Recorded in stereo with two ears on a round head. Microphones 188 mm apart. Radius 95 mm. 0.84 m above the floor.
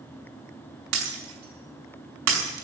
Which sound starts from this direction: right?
Breaking glass, at 0.9 s.